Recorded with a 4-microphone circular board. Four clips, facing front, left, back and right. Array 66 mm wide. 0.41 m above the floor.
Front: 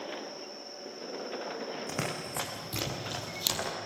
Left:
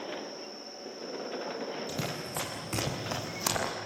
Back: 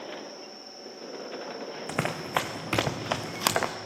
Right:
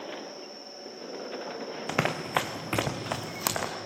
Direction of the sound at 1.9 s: 110° right.